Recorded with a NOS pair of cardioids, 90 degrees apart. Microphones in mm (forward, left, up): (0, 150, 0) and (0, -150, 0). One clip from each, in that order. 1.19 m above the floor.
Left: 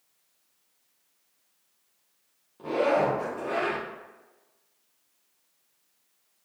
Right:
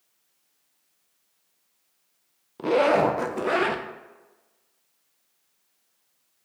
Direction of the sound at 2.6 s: 60° right.